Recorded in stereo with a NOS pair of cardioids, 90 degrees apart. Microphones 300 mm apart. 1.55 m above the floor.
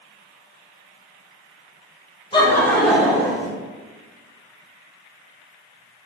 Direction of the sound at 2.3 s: 15° left.